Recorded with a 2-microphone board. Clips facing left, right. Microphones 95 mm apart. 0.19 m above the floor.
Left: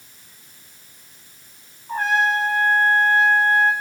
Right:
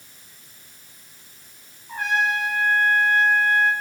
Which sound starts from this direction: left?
A trumpet, at 1.9 s.